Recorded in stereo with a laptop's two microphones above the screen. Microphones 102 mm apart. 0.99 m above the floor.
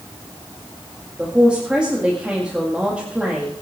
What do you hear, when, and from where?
1.2 s a man speaking: 10° right (ahead or behind), 1.9 m